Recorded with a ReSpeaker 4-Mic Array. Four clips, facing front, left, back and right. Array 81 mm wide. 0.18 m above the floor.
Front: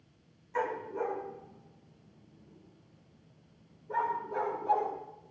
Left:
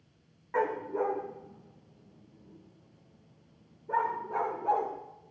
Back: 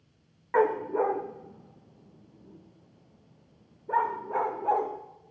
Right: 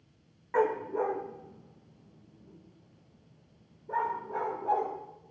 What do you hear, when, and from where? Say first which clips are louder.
0.5 s a dog barking: right 2 dB, back 9 dB; 170° right, 2 m; by 4.9 s 170° left, 5.5 m